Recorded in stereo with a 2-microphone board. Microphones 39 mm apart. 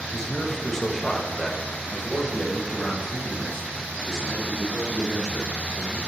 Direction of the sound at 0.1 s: 20° left (ahead or behind).